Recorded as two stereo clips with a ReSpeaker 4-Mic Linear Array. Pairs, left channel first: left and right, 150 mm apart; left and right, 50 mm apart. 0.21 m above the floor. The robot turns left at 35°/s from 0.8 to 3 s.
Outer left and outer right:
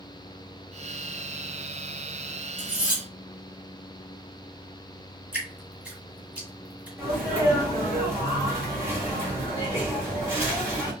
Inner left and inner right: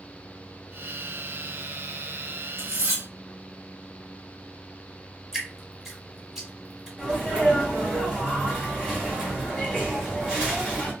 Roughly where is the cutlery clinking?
Right.